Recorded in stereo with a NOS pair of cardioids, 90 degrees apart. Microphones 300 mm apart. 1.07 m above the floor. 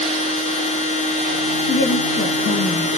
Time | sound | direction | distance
0.0 | a machine running | 25° left | 0.8 m
1.7 | a woman speaking | 40° left | 1.9 m